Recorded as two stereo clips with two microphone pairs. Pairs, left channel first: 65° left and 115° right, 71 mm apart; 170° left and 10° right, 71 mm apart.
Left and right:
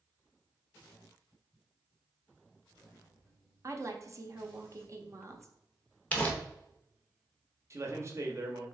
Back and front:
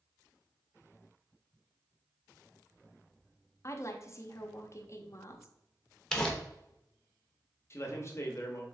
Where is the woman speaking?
150° right, 0.7 m.